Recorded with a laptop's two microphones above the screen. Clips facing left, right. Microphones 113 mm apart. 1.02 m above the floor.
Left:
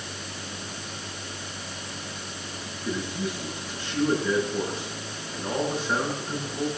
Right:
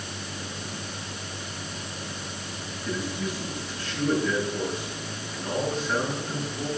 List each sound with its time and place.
2.8 s a man speaking: 30° left (ahead or behind), 9.5 m